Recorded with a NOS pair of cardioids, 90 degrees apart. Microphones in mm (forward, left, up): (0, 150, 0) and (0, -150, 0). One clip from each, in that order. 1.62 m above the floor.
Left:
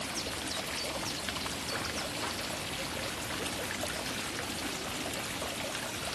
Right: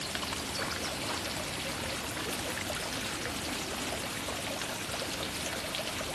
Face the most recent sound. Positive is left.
No sound to turn to.